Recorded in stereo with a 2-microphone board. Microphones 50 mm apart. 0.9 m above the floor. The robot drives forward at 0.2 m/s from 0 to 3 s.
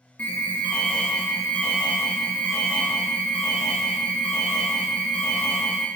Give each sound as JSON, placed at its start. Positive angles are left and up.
{"t": 0.2, "sound": "an alarm", "side_deg": 30, "distance_m": 0.8}